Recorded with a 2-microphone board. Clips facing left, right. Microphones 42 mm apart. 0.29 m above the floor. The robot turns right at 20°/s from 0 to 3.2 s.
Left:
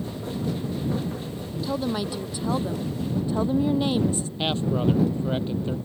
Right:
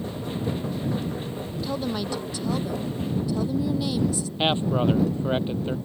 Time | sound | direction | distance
1.6 | a woman speaking | 5° left | ?
4.4 | a man speaking | 25° right (ahead or behind) | ?